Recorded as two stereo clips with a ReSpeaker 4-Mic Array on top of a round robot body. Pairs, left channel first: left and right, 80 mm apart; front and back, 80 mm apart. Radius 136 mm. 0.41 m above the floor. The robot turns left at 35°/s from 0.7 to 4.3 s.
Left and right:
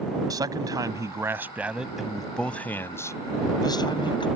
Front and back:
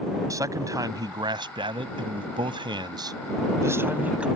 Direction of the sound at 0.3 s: 130° right.